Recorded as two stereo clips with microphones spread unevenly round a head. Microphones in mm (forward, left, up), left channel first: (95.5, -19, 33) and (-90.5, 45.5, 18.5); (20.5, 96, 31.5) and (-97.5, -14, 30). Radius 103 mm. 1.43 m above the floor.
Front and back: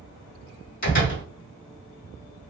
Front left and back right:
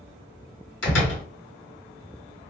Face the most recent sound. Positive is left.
turn(degrees=30)